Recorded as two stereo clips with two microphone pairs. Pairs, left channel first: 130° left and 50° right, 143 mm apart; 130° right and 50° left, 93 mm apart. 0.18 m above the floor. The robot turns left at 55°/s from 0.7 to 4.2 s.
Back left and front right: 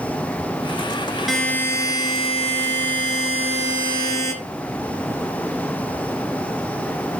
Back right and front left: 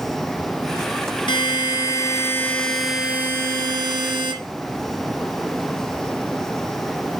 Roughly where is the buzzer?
Behind right.